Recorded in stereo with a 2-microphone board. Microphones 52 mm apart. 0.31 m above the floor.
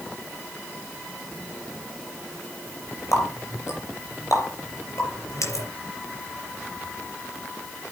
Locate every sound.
3.1 s a running tap: 75° left (ahead or behind), 5 m